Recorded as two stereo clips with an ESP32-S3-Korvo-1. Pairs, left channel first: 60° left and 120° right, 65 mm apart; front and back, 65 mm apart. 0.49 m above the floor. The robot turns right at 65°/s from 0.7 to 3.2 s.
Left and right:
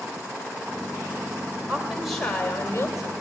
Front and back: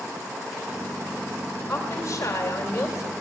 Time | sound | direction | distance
1.7 | a woman speaking | 55° right | 2.5 m